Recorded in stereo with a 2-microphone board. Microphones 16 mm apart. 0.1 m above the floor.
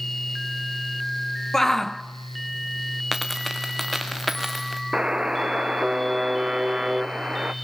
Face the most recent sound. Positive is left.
turn(degrees=-55)  # may be behind; listen again after turning